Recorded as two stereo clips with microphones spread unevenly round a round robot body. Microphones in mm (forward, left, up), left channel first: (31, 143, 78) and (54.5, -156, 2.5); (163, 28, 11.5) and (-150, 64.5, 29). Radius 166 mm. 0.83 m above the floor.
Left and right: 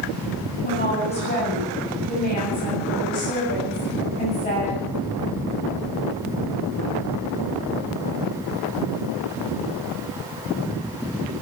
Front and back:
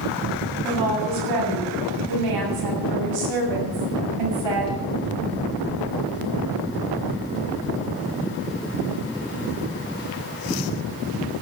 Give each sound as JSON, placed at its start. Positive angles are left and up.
{"t": 0.6, "sound": "a woman speaking", "azimuth_deg": 160, "distance_m": 8.0}